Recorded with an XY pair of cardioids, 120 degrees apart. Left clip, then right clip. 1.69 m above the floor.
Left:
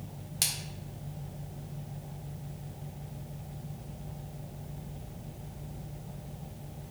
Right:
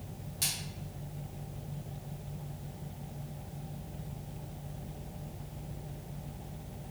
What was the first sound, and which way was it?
A splash, 55° left.